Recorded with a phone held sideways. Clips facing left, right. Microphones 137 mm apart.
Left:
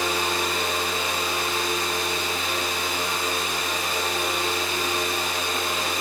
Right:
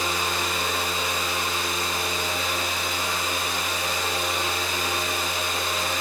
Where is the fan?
65° left (ahead or behind), 4 m.